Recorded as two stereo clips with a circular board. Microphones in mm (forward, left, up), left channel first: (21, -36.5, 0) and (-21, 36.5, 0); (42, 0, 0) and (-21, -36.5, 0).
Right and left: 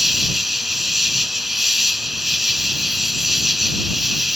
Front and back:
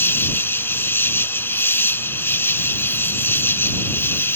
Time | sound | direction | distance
0.0 | an insect | 35° left | ?